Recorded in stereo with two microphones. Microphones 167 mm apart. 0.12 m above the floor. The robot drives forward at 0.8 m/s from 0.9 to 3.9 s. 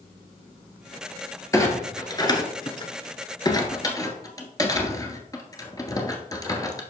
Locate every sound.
1.5 s a clunk: 20° left (ahead or behind), 1.4 m; by 6.8 s 25° left (ahead or behind), 1.3 m